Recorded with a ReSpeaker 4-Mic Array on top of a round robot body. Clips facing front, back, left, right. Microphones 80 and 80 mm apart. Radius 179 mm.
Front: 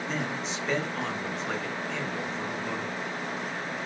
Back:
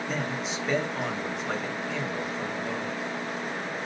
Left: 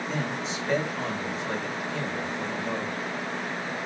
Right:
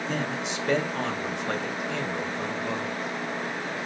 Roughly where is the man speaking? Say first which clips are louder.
Back 1 dB, right 1 dB; right.